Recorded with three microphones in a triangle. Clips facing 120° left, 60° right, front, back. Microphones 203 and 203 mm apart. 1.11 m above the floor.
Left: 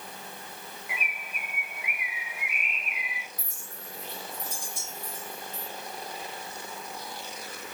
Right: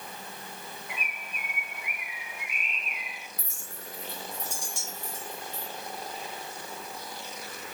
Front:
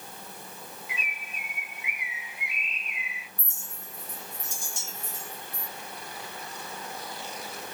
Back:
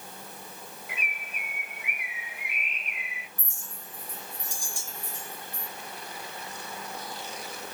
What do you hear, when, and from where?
0.9 s a bird: 160° right, 1.5 m
3.4 s a clink: 70° right, 2 m